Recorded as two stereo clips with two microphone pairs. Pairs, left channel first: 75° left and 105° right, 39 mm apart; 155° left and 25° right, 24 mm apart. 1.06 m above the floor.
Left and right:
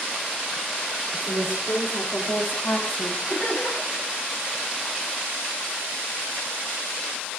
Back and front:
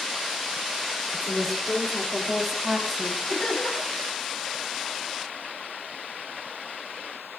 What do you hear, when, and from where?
1.1 s a woman speaking: 90° left, 3.5 m; by 3.2 s 35° left, 2.0 m
3.3 s laughter: 120° left, 7 m